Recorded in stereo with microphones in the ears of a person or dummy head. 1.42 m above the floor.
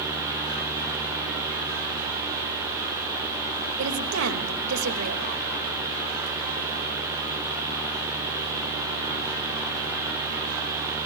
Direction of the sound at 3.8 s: 75° right (ahead or behind).